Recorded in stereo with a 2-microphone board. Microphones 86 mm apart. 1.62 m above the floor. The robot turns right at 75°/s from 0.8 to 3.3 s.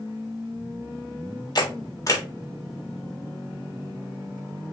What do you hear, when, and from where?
1.6 s a camera shutter: 50° left (ahead or behind), 1.4 m; by 2.2 s 30° left (ahead or behind), 1.4 m